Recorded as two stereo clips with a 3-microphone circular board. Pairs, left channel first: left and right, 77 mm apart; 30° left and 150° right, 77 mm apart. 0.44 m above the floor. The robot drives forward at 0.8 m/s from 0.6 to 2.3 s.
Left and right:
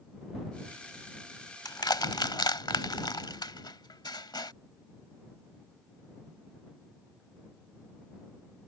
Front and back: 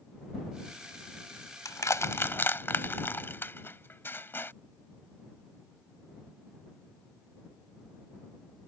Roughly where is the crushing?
Ahead left.